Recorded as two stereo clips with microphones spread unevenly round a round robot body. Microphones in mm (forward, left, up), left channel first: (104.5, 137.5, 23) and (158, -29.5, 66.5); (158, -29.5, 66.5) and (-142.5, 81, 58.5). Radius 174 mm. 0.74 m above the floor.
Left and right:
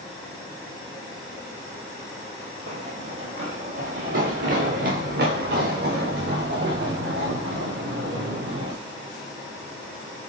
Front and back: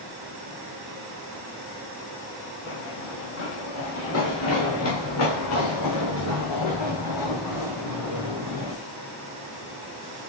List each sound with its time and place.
2.7 s running footsteps: 80° right, 2.5 m; by 8.7 s 65° right, 6.5 m